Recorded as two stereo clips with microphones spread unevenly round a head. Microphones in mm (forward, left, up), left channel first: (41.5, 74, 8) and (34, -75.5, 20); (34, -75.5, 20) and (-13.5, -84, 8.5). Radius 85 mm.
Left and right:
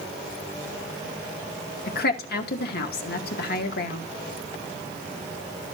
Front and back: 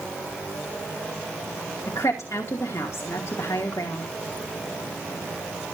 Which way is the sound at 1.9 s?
75° left.